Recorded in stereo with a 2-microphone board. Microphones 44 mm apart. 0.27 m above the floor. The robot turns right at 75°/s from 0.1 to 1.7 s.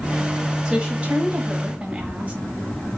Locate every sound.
0.7 s a woman speaking: 15° right (ahead or behind), 1.3 m; by 2.3 s 30° right (ahead or behind), 1.3 m